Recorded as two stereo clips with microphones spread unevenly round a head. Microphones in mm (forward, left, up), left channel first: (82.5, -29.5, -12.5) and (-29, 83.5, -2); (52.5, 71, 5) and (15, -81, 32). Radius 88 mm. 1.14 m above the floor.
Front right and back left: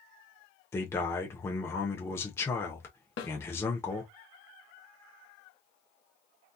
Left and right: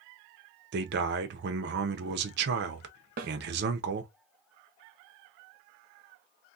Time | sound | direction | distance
0.7 | a man speaking | 120° right | 0.7 m
3.2 | a snare drum | 80° right | 1.2 m